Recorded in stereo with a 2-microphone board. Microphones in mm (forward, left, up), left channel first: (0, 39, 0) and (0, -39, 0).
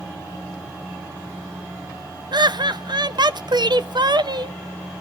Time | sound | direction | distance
2.3 | laughter | 65° right (ahead or behind) | 0.7 m